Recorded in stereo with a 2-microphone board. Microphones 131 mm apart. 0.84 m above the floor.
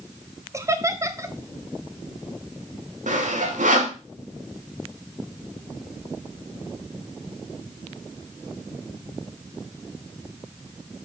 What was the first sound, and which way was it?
Laughter, 25° right (ahead or behind).